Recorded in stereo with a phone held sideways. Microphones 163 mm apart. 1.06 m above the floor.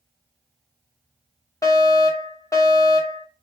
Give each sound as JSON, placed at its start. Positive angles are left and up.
{"t": 1.6, "sound": "a fire alarm", "side_deg": 20, "distance_m": 1.0}